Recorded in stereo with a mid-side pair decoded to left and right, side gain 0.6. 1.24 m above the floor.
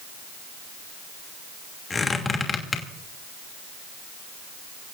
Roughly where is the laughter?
I don't hear laughter.